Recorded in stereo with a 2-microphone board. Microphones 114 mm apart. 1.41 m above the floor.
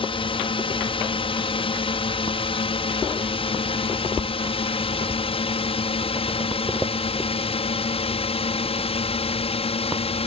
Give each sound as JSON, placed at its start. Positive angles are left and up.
{"t": 0.0, "sound": "a drone", "side_deg": 50}